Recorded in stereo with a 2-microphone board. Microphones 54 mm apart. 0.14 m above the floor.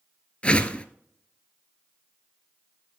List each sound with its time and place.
0.4 s a whoosh: 25° left (ahead or behind), 0.7 m